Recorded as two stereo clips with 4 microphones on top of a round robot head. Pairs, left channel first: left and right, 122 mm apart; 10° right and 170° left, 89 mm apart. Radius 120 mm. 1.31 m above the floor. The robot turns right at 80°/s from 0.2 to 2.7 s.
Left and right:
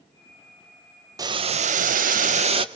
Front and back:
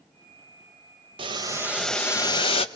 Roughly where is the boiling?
Behind right.